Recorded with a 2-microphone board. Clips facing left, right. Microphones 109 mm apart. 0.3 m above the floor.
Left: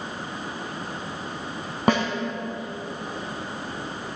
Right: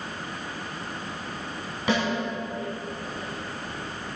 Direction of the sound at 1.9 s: 50° left (ahead or behind).